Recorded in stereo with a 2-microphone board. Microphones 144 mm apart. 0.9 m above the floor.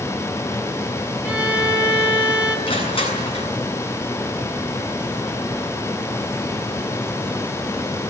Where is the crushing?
45° left (ahead or behind), 7.5 m.